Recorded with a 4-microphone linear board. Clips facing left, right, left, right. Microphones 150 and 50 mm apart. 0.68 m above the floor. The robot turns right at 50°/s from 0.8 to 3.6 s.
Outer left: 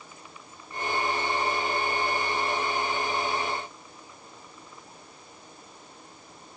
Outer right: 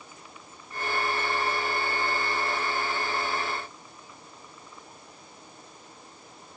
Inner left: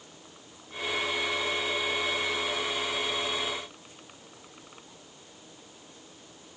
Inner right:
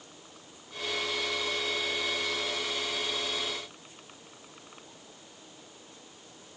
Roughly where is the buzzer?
No buzzer in this recording.